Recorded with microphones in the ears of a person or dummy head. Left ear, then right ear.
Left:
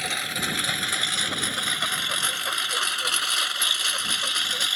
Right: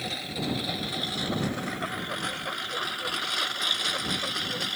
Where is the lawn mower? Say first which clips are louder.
Left 6 dB; 55° left (ahead or behind); by 4.8 s 65° left (ahead or behind).